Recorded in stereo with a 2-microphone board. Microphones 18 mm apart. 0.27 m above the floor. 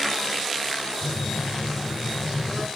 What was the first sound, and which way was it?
A phone buzzing, 5° right (ahead or behind).